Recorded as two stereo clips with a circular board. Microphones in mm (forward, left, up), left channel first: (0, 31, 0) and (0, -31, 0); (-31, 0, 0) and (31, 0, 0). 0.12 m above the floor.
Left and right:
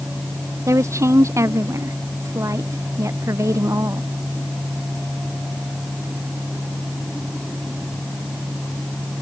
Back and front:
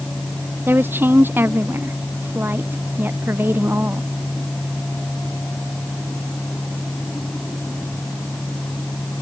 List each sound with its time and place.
0.7 s a woman speaking: 55° right